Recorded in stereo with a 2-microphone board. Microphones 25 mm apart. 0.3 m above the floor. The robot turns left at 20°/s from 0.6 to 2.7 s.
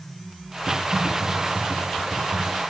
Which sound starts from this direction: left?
Typing on a keyboard, at 0.7 s.